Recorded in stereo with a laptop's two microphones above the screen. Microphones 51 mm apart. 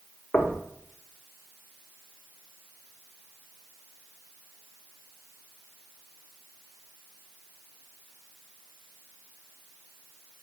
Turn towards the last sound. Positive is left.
turn(degrees=30)  # may be behind; listen again after turning